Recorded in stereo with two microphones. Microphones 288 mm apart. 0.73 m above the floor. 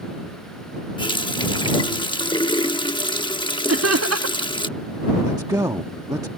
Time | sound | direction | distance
1.0 | a running tap | 15° left (ahead or behind) | ?
3.7 | laughter | 55° right (ahead or behind) | ?
5.2 | a man speaking | 10° right (ahead or behind) | ?